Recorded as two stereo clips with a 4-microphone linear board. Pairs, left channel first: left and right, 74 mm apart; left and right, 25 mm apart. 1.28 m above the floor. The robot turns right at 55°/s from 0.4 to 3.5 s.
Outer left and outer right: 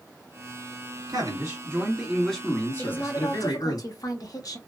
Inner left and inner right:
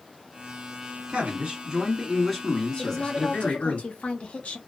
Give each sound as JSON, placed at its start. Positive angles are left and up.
{"t": 1.1, "sound": "a man speaking", "azimuth_deg": -60, "distance_m": 1.8}
{"t": 2.8, "sound": "a woman speaking", "azimuth_deg": 20, "distance_m": 0.8}